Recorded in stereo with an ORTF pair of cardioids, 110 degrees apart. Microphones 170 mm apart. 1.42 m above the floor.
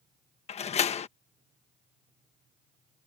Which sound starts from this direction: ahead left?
A door slam, at 0.5 s.